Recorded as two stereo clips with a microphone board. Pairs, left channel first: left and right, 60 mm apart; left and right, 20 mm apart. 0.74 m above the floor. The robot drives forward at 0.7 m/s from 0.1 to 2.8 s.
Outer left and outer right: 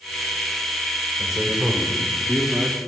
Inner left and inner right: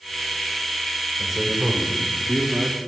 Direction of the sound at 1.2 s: 10° right (ahead or behind).